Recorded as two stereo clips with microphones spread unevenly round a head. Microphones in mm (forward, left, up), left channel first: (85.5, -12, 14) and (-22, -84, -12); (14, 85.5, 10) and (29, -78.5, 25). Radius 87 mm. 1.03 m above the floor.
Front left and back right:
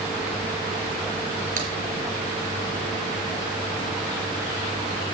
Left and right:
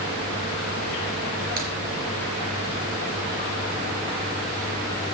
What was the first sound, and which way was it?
A crack, 125° right.